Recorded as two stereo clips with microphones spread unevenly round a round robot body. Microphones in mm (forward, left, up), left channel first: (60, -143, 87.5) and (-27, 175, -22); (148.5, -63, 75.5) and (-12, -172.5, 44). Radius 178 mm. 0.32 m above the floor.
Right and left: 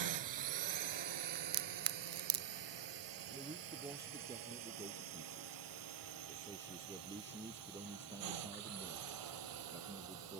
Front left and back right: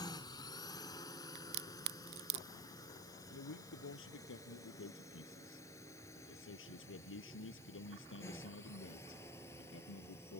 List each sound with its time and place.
0.0 s a drone: 110° left; by 10.4 s 115° left
1.4 s a crack: 170° left
3.3 s a man speaking: 25° left